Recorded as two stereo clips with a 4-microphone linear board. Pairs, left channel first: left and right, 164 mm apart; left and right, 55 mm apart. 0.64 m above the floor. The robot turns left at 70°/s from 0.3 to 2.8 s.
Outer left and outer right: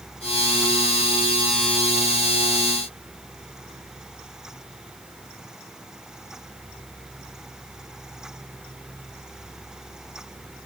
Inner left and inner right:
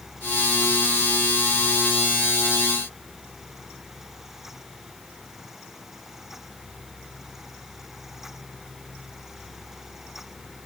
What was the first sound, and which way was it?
Only background noise.